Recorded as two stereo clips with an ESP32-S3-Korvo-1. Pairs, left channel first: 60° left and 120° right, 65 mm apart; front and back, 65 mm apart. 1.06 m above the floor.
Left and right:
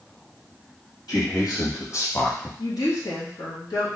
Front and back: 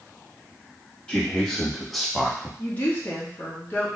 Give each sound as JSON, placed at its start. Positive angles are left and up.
{"t": 1.1, "sound": "a man speaking", "azimuth_deg": 75, "distance_m": 2.0}
{"t": 2.6, "sound": "a woman speaking", "azimuth_deg": 65, "distance_m": 1.7}